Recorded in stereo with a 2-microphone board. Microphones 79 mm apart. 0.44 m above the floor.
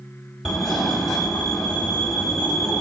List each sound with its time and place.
0.5 s a fire alarm: 5° left (ahead or behind), 1.7 m